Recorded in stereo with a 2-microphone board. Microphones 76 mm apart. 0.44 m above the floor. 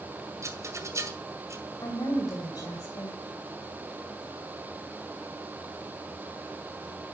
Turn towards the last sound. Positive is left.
turn(degrees=55)  # may be behind; listen again after turning